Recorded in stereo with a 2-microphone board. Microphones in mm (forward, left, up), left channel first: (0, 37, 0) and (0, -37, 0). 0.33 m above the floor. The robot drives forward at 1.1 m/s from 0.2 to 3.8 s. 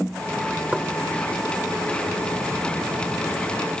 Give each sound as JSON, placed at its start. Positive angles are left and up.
{"t": 0.7, "sound": "knocking", "side_deg": -20, "distance_m": 0.9}